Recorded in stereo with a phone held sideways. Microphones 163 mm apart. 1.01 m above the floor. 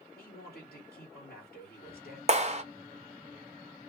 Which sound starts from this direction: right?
A clap, at 2.3 s.